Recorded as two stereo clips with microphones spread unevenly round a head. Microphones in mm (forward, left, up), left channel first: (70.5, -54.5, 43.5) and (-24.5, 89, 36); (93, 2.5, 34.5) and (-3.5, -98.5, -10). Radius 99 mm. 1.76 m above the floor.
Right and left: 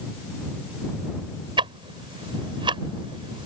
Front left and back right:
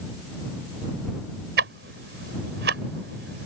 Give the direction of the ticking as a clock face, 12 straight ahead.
6 o'clock.